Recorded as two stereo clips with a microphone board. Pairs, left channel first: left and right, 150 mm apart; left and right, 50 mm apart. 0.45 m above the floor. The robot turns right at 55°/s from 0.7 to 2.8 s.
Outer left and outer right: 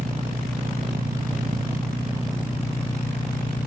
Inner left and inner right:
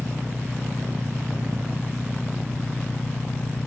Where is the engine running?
105° right, 1.0 m; by 3.7 s 10° left, 1.0 m.